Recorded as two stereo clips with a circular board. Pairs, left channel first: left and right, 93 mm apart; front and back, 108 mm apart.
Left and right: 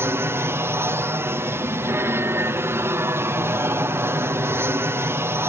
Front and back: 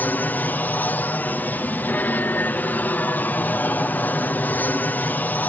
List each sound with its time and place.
0.0 s an aircraft: 60° right